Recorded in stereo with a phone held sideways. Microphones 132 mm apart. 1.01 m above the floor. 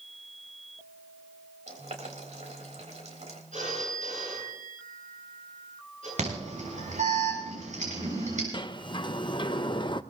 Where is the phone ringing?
85° right, 10 m.